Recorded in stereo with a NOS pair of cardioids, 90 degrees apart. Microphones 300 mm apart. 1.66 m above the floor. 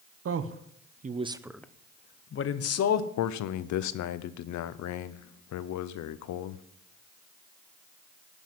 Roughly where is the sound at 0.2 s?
Ahead right.